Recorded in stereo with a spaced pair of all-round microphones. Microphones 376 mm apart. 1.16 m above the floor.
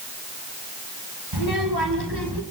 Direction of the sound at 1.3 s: 80° right.